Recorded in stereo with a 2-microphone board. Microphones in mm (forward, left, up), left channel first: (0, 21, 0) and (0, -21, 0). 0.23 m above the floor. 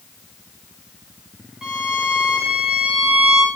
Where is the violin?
15° right (ahead or behind), 3.5 m.